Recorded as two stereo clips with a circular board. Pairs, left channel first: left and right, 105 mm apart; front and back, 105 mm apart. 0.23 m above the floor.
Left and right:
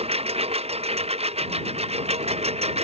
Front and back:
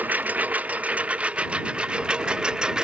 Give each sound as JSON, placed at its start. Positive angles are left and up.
{"t": 0.0, "sound": "a lawn mower", "azimuth_deg": -105}